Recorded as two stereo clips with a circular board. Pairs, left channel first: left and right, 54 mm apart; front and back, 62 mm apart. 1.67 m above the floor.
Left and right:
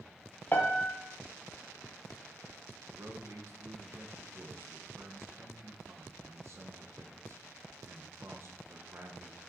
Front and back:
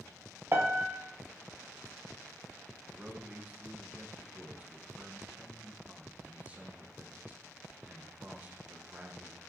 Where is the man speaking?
115° right, 1.1 m.